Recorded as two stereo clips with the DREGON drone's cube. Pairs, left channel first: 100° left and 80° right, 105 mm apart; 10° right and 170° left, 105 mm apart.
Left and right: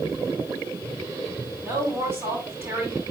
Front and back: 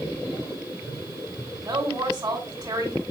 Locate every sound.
1.6 s a woman speaking: 145° right, 4.5 m